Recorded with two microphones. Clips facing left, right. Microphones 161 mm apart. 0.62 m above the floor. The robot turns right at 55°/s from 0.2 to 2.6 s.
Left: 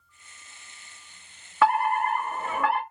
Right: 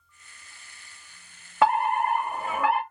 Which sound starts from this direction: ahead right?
A fire alarm, at 1.6 s.